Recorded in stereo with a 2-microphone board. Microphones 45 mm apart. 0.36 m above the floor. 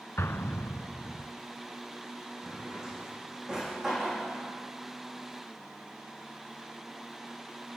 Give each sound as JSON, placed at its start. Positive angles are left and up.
{"t": 0.2, "sound": "an explosion", "side_deg": 80, "distance_m": 0.7}
{"t": 2.4, "sound": "a drawer", "side_deg": -15, "distance_m": 6.5}